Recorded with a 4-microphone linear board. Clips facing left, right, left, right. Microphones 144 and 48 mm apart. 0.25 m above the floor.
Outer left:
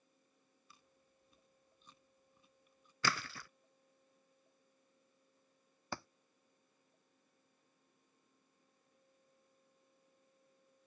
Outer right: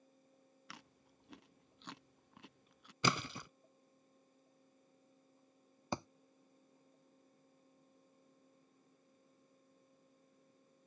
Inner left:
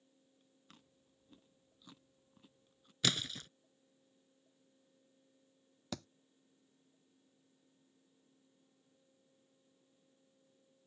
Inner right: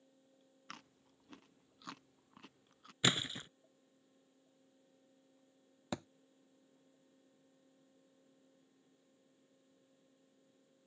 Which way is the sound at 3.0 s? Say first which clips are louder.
Outer right 3 dB, inner right 2 dB; 20° right (ahead or behind).